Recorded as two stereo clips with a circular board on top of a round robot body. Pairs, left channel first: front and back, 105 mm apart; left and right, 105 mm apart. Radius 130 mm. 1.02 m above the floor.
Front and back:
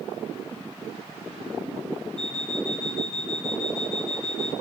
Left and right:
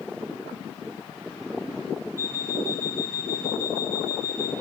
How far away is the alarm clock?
About 4 m.